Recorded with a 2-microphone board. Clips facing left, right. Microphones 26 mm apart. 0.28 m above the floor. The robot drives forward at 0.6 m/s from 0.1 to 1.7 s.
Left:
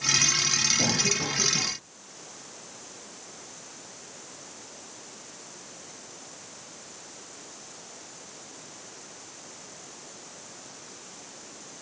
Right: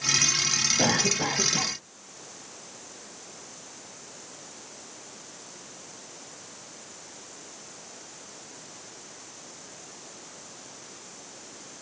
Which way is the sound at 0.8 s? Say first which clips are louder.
Right 2 dB; 45° right (ahead or behind).